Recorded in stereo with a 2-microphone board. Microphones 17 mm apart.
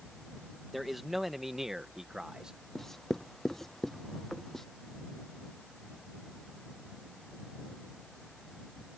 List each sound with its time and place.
0.7 s a man speaking: 5° left (ahead or behind); by 2.5 s 35° right (ahead or behind)
2.8 s writing: 25° left (ahead or behind)